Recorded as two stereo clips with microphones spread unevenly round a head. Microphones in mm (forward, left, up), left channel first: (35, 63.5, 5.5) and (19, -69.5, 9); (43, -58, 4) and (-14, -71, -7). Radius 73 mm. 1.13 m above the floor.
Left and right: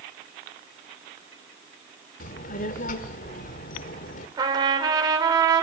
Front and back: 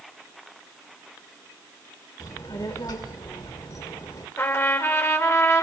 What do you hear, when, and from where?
2.2 s a child speaking: 60° left, 1.9 m
4.4 s a trumpet: 35° right, 5 m